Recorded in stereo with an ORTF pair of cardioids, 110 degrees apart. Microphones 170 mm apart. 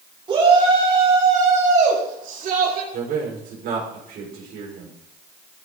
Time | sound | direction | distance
0.3 | a shout | 30° right | 5 m
2.9 | a man speaking | 60° right | 5.5 m